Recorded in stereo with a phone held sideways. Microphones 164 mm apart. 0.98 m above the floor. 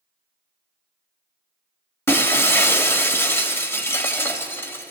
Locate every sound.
2.1 s breaking glass: 15° left (ahead or behind), 1.7 m